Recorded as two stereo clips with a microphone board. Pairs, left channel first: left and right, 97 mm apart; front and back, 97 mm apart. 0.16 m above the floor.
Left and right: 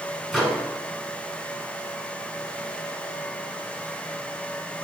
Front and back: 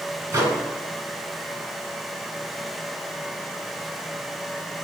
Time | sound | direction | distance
0.3 | a microwave | straight behind | 1.1 m